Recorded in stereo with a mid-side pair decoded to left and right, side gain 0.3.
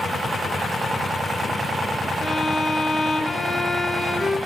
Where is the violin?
30° left, 1.2 m.